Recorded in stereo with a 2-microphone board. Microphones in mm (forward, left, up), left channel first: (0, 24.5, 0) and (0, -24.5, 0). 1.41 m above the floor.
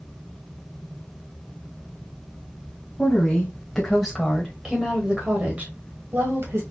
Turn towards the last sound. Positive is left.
turn(degrees=-60)  # may be behind; listen again after turning